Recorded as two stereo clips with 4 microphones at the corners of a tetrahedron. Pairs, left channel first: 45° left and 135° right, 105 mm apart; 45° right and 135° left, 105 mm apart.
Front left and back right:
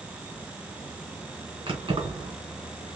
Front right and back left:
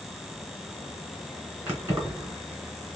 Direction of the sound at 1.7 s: 150° right.